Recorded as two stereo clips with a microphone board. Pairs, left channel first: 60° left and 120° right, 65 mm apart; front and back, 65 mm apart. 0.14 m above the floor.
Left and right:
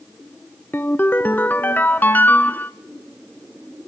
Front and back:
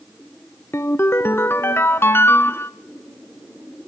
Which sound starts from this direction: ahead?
A ringtone, at 0.7 s.